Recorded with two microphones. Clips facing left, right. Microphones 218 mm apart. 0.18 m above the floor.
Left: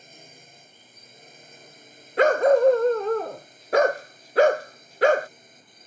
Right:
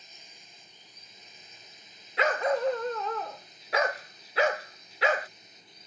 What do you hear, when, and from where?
0.0 s a drone: 60° left (ahead or behind); by 5.9 s 55° left (ahead or behind)
2.2 s a dog barking: 50° left (ahead or behind)